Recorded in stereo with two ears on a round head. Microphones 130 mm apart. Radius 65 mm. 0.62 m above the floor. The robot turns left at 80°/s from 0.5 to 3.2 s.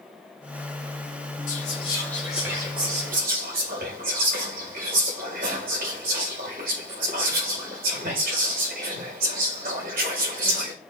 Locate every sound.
1.5 s whispering: 60° left (ahead or behind), 2.5 m; by 10.7 s 70° right (ahead or behind), 2.5 m